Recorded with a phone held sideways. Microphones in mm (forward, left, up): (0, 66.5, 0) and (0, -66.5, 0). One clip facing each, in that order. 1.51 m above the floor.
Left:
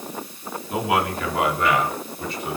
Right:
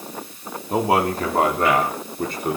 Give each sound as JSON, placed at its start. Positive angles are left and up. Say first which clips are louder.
{"t": 0.7, "sound": "a man speaking", "louder": "right 4 dB", "side_deg": -35, "distance_m": 4.0}